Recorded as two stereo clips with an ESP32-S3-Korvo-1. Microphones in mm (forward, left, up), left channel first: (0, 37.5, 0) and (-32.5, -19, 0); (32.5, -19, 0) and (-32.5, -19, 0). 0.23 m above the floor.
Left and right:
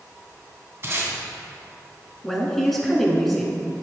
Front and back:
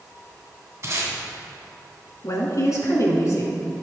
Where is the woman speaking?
25° right, 2 m.